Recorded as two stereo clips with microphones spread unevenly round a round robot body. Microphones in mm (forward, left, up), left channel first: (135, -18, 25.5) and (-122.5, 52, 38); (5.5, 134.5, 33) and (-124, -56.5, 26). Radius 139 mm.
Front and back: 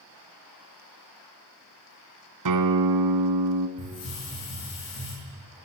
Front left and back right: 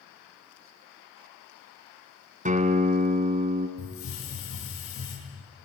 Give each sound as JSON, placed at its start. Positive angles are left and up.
{"t": 2.5, "sound": "a guitar", "azimuth_deg": 180, "distance_m": 1.5}
{"t": 3.8, "sound": "a hiss", "azimuth_deg": 15, "distance_m": 8.5}